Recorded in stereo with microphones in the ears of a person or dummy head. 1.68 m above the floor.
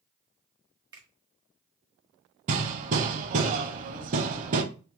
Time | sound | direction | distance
0.9 | a finger snap | 25° right (ahead or behind) | 1.3 m
2.5 | hammering | 40° right (ahead or behind) | 0.8 m